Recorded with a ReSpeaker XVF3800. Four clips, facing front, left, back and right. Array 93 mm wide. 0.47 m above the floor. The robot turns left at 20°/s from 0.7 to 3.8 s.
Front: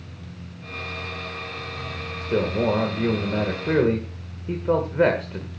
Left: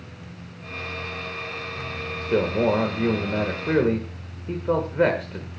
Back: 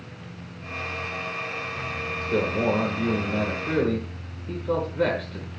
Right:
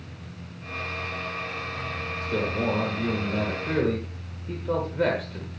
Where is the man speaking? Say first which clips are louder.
Left 6 dB, front 2 dB; 70° left, 1.6 m; by 5.5 s 40° left, 1.6 m.